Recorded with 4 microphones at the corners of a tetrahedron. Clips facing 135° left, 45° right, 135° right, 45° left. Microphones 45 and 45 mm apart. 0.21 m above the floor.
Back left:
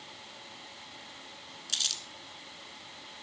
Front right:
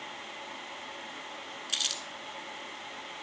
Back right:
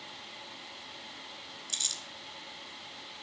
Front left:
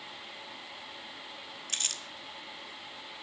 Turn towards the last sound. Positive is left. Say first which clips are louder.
# front right 1 dB, front left 2 dB
turn(degrees=35)